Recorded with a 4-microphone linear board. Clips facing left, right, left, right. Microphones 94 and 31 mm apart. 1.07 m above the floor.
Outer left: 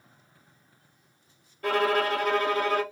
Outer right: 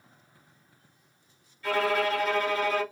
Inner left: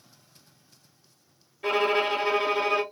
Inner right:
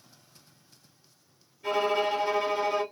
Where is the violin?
60° left (ahead or behind), 1.1 m.